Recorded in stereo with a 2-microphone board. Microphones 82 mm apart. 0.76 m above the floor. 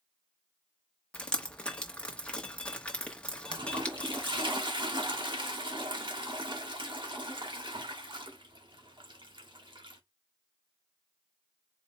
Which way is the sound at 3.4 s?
75° right (ahead or behind).